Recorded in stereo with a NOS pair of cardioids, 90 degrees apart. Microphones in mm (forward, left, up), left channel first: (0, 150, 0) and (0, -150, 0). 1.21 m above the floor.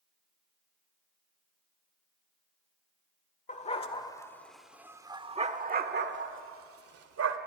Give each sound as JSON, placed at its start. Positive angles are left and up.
{"t": 3.5, "sound": "a dog barking", "azimuth_deg": 25, "distance_m": 1.8}